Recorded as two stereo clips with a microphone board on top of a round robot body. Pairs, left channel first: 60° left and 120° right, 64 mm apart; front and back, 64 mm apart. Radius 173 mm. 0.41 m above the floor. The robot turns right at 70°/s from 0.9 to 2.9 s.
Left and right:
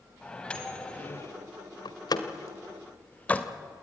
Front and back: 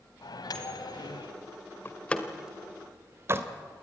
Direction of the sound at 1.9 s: 55° left.